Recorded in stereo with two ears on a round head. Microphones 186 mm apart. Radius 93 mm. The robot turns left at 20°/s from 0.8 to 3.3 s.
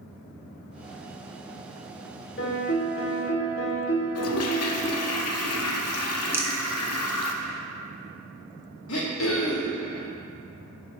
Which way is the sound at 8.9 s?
70° left (ahead or behind).